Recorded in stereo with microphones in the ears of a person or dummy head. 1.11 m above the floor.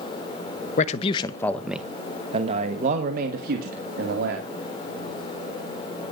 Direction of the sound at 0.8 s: 45° left (ahead or behind).